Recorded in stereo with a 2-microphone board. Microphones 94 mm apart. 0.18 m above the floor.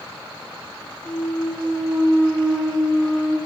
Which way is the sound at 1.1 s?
30° left (ahead or behind).